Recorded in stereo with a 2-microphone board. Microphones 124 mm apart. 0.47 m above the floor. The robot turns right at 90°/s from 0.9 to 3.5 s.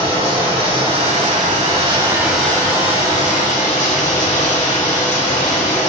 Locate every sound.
0.0 s running water: 130° right, 1.2 m; by 5.9 s 105° left, 1.2 m